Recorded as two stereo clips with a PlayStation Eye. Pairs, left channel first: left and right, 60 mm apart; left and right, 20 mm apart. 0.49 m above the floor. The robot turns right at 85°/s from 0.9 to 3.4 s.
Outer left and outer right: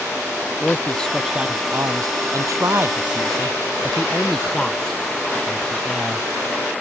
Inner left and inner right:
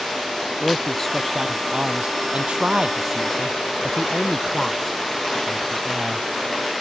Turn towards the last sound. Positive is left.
turn(degrees=10)  # may be behind; listen again after turning